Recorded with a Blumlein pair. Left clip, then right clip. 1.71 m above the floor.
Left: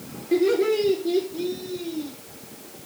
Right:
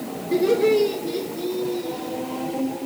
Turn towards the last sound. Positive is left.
turn(degrees=20)